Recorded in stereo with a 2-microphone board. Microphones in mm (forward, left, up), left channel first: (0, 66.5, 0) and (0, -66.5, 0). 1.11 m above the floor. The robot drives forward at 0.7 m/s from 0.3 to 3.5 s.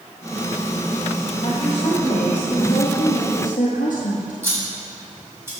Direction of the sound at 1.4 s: 35° left (ahead or behind).